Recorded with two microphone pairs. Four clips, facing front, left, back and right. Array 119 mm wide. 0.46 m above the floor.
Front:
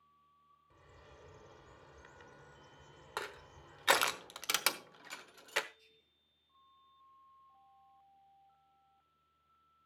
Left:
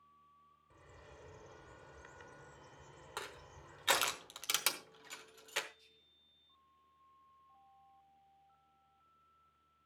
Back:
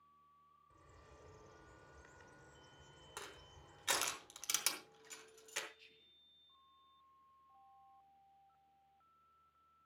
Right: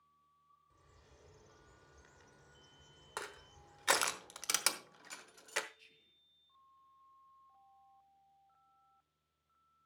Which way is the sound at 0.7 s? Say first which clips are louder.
Left 10 dB, front 4 dB; 55° left.